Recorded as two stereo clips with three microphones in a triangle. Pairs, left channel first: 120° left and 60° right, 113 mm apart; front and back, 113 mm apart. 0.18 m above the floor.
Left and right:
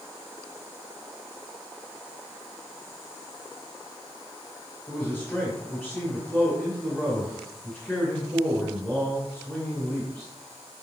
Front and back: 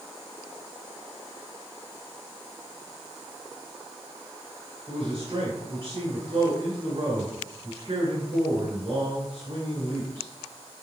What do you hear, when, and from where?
4.9 s a man speaking: 150° right, 2.5 m